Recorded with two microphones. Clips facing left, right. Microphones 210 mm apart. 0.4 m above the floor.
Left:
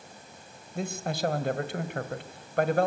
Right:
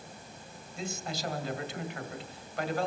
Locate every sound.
0.8 s a man speaking: 55° left (ahead or behind), 1.9 m